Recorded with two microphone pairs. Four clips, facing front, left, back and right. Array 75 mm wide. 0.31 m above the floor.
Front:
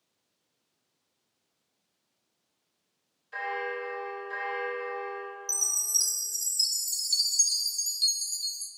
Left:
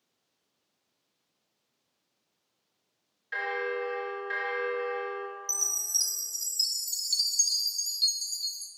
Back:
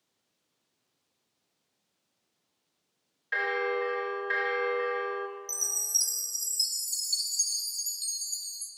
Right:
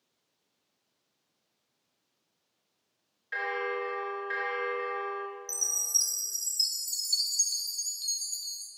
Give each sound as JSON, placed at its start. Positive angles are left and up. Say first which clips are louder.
{"t": 3.3, "sound": "a bell", "louder": "left 1 dB, back 4 dB", "azimuth_deg": 180, "distance_m": 0.9}
{"t": 5.5, "sound": "a chime", "louder": "left 1 dB, front 1 dB", "azimuth_deg": 10, "distance_m": 0.8}